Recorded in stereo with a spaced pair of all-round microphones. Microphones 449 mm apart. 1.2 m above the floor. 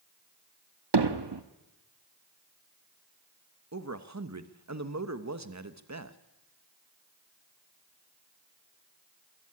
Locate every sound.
0.9 s hammering: 60° right (ahead or behind), 1.1 m
3.7 s a man speaking: 35° right (ahead or behind), 1.2 m